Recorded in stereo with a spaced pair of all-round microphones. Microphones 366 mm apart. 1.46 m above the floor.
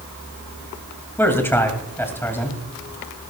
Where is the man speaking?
5° left (ahead or behind), 2.5 m.